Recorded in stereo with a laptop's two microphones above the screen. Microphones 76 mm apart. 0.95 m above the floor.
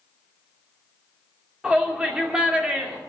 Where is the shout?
15° right (ahead or behind), 2.5 m.